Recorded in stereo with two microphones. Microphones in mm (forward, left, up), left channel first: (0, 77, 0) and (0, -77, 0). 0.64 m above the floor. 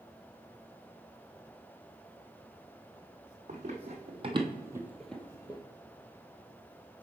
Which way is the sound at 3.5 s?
50° right (ahead or behind).